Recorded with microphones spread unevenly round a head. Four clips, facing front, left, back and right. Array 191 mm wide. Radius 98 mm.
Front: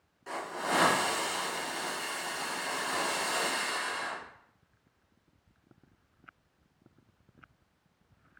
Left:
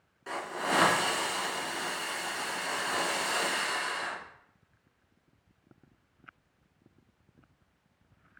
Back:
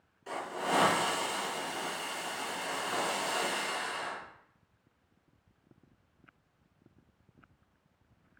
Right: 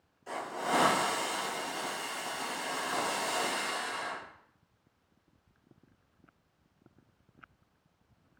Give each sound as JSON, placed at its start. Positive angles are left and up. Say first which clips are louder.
{"t": 0.3, "sound": "a hiss", "louder": "left 1 dB, even", "azimuth_deg": 95, "distance_m": 1.7}